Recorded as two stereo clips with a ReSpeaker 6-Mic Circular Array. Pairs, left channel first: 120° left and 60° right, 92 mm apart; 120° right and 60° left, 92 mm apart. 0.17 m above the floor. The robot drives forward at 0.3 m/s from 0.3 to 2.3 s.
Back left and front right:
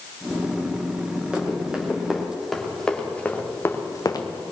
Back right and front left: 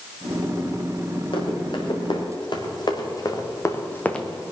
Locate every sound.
1.3 s running footsteps: 135° right, 4 m; by 4.3 s 160° left, 1.6 m